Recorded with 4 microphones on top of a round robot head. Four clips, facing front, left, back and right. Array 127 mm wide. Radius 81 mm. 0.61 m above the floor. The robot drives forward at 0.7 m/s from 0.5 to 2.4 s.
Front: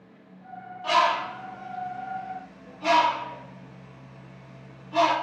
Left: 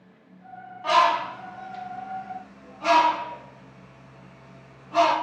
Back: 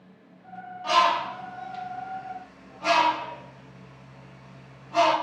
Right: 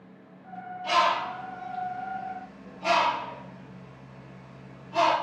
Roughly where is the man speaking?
I don't hear a man speaking.